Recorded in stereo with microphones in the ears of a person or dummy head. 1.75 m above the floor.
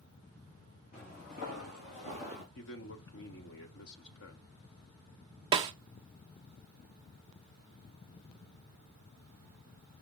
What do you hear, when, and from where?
0.9 s footsteps: 55° left (ahead or behind), 4 m; by 2.5 s 40° left (ahead or behind), 3 m
2.5 s a man speaking: 70° left (ahead or behind), 1.4 m
5.5 s a snare drum: 20° right (ahead or behind), 0.5 m